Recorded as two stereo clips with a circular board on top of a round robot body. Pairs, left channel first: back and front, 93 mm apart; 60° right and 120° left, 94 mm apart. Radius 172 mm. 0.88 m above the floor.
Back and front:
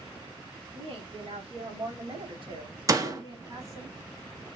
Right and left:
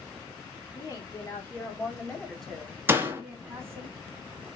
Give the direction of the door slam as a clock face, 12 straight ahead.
10 o'clock.